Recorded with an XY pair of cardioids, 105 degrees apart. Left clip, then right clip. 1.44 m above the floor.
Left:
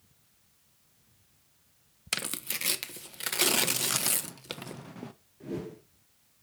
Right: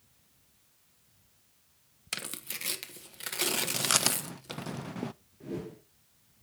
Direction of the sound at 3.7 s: 40° right.